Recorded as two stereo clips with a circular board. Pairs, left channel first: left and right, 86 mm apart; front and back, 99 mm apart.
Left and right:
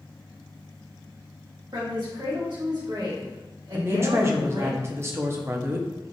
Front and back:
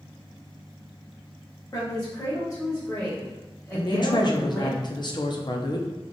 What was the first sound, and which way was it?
A woman speaking, 65° right.